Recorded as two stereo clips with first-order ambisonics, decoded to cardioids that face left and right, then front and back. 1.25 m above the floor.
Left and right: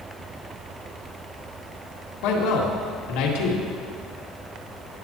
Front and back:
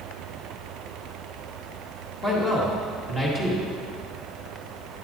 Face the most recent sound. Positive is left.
turn(degrees=75)